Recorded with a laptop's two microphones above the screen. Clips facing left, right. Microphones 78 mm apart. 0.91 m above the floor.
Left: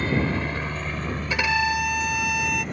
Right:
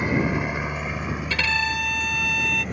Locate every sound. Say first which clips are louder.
0.0 s a helicopter: right 1 dB; 15° right (ahead or behind); by 2.7 s centre (ahead or behind)
1.3 s a violin: left 4 dB; 20° left (ahead or behind)